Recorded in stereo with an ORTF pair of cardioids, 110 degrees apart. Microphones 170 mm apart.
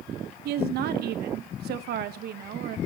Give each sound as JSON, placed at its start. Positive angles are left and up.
{"t": 0.5, "sound": "a woman speaking", "azimuth_deg": -70, "distance_m": 1.1}